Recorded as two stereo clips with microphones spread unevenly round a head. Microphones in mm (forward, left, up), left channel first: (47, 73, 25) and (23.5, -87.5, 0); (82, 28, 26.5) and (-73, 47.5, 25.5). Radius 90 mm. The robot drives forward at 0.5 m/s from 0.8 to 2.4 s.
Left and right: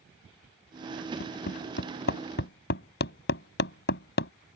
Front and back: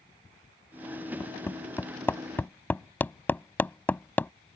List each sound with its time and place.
1.2 s hammering: 65° left; by 4.3 s 70° left